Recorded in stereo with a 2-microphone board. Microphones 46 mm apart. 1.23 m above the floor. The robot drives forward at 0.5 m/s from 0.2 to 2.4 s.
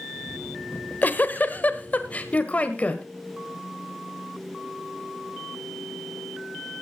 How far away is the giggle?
About 1.1 m.